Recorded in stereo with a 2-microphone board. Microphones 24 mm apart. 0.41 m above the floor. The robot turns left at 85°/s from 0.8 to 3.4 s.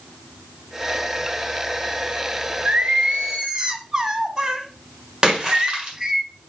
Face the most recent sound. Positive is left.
turn(degrees=-35)  # may be behind; listen again after turning